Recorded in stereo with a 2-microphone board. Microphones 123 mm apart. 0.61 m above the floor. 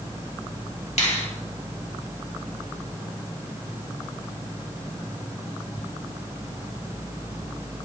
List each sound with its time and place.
1.0 s a finger snap: 75° left (ahead or behind), 2 m